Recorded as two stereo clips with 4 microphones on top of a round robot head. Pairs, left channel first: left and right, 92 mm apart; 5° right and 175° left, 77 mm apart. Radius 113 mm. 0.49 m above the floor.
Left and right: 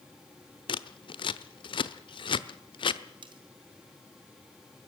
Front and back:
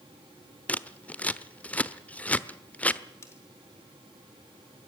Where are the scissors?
70° left, 1.1 m.